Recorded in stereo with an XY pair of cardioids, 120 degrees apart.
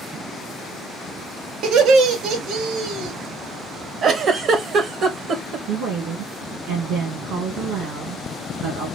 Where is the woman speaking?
70° right, 2 m.